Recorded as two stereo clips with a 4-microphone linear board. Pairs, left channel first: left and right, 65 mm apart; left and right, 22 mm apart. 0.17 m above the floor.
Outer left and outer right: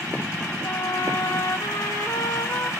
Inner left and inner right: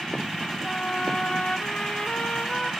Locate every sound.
0.6 s a trumpet: 70° left (ahead or behind), 5.5 m